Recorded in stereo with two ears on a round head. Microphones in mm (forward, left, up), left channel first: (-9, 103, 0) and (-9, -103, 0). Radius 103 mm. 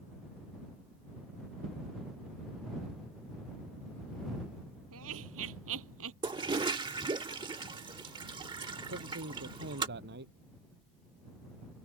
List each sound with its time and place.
4.9 s laughter: 70° right (ahead or behind); by 6.1 s 65° right (ahead or behind)
6.2 s a toilet flushing: 20° right (ahead or behind)
8.9 s a man speaking: 50° right (ahead or behind)